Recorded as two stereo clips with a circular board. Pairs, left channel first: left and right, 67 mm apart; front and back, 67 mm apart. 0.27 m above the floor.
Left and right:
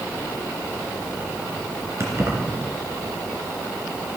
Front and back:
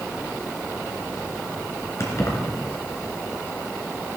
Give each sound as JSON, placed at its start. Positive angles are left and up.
{"t": 2.0, "sound": "keys jangling", "azimuth_deg": -40, "distance_m": 2.5}